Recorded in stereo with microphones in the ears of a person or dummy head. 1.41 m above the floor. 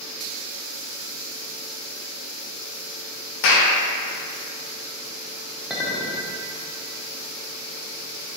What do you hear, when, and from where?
3.4 s a clap: 70° left (ahead or behind), 0.8 m
5.7 s a clink: centre (ahead or behind), 0.6 m